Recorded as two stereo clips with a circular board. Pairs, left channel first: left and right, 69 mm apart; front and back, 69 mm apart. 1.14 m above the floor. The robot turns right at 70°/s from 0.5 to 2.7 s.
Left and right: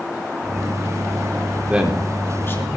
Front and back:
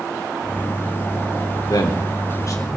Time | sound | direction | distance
1.7 | a man speaking | 20° right | 3.5 m